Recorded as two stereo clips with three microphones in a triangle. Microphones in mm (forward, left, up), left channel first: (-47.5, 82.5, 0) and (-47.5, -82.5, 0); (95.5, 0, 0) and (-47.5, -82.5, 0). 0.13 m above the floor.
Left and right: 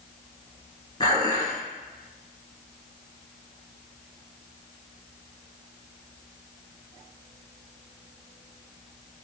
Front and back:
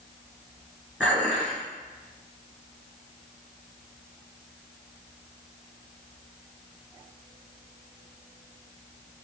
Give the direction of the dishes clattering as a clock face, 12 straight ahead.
8 o'clock.